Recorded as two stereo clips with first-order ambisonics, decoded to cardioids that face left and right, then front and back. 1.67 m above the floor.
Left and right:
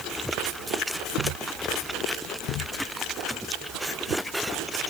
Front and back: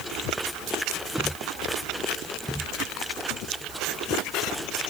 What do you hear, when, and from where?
Only background noise.